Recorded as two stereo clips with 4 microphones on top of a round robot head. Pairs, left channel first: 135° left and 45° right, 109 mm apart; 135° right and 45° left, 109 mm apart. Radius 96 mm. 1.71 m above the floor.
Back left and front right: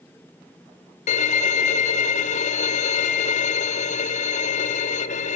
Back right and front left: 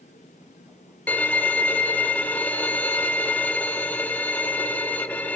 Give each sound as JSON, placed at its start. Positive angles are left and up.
{"t": 1.1, "sound": "a violin", "azimuth_deg": 150, "distance_m": 1.0}